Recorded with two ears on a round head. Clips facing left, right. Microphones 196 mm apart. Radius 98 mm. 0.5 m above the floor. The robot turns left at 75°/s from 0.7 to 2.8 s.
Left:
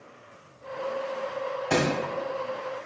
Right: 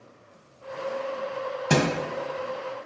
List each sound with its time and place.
1.7 s a thud: 55° right (ahead or behind), 1.7 m; by 1.9 s 40° right (ahead or behind), 1.7 m